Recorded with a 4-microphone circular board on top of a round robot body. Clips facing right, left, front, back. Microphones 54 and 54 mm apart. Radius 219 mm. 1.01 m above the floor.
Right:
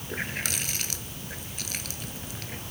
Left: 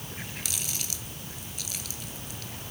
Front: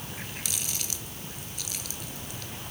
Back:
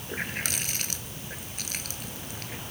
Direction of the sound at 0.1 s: 135° right.